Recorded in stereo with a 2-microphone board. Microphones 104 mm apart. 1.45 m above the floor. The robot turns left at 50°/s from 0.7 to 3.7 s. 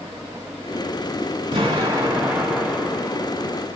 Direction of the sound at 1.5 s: 125° right.